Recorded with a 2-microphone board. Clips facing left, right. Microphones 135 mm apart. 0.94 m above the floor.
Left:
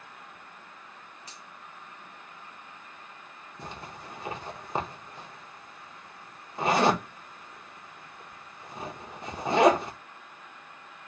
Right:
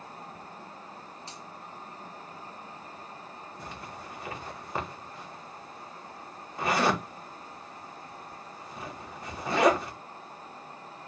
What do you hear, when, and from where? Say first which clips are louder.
1.3 s a finger snap: right 5 dB; 30° right (ahead or behind), 1.7 m
3.6 s a zipper: left 3 dB; 20° left (ahead or behind), 0.8 m